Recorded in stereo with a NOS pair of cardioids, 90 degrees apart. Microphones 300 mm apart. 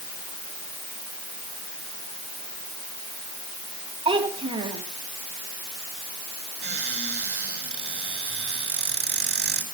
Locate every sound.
4.0 s a child speaking: 20° right, 6.5 m
6.6 s a cupboard door: 35° right, 8 m